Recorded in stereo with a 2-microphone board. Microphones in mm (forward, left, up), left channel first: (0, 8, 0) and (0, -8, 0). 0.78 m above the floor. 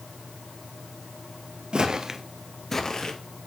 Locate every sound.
1.7 s footsteps: 50° right (ahead or behind), 1.1 m; by 3.1 s 50° left (ahead or behind), 1.2 m